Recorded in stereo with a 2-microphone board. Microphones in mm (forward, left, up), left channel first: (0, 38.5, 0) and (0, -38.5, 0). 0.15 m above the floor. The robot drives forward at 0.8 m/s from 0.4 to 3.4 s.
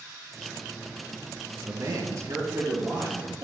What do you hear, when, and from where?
1.6 s a man speaking: 50° right (ahead or behind), 2.5 m; by 3.4 s 35° right (ahead or behind), 3.5 m